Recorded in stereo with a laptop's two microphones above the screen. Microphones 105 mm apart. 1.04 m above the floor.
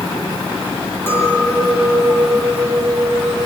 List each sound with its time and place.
1.1 s a clink: 20° left (ahead or behind), 6.5 m